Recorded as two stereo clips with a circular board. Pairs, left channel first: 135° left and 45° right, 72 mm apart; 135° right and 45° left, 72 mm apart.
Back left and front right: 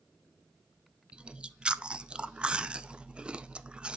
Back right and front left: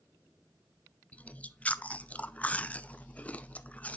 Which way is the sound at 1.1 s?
100° right.